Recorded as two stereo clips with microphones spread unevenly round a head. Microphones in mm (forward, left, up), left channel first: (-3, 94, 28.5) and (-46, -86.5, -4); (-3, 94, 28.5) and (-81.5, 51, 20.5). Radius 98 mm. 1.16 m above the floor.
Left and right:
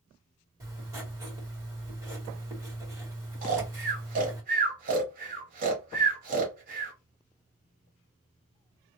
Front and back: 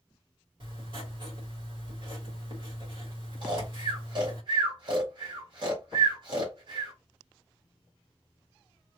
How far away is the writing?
About 2.0 m.